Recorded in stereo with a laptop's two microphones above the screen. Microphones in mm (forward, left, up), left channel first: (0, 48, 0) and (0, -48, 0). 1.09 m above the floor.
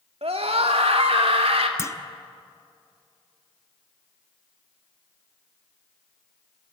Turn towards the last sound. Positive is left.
turn(degrees=30)  # may be behind; listen again after turning